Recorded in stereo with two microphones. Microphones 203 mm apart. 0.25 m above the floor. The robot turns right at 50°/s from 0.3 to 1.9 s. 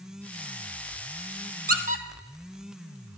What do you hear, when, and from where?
1.7 s a squeak: 50° right (ahead or behind), 0.7 m; by 2.0 s 40° right (ahead or behind), 0.7 m